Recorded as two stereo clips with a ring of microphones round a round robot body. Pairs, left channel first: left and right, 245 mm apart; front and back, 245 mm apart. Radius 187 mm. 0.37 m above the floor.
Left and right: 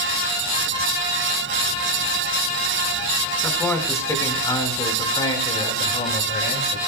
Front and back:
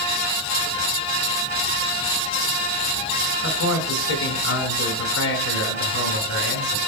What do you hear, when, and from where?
3.4 s a man speaking: 5° left, 4 m; by 6.8 s 35° left, 4.5 m